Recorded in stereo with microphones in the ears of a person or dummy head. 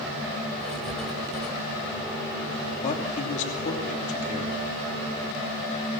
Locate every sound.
0.6 s writing: centre (ahead or behind), 1.6 m
2.8 s a man speaking: 45° left (ahead or behind), 3 m